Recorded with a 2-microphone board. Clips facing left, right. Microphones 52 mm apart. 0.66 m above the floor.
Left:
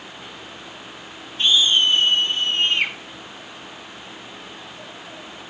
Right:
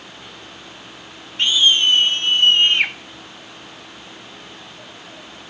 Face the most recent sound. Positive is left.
turn(degrees=-70)  # may be behind; listen again after turning